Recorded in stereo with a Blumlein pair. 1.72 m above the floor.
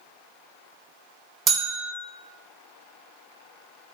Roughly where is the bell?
Ahead.